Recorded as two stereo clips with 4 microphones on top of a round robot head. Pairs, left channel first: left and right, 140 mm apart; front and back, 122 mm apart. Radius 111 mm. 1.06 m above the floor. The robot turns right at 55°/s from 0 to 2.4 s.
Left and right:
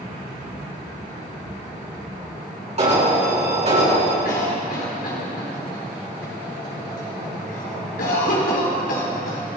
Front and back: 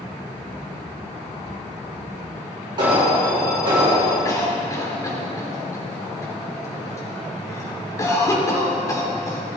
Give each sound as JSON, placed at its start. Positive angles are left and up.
{"t": 2.8, "sound": "an alarm", "azimuth_deg": -125, "distance_m": 4.0}
{"t": 4.2, "sound": "a cough", "azimuth_deg": 60, "distance_m": 4.0}